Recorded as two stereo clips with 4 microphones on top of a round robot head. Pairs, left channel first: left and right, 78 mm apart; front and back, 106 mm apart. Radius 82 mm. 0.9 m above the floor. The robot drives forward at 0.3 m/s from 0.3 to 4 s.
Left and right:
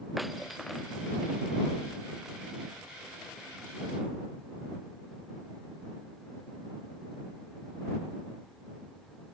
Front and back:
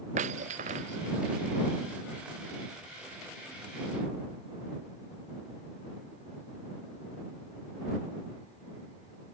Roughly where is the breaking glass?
Behind.